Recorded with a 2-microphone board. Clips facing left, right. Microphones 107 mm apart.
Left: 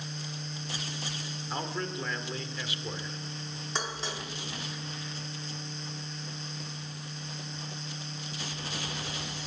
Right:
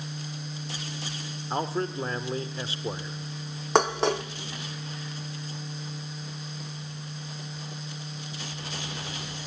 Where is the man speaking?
30° right (ahead or behind), 1.6 m.